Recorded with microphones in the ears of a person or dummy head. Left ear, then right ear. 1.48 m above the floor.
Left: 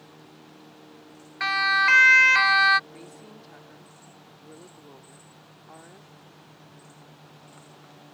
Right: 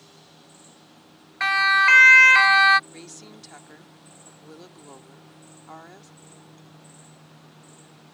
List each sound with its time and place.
1.4 s a siren: 15° right (ahead or behind)
2.9 s a woman speaking: 40° right (ahead or behind)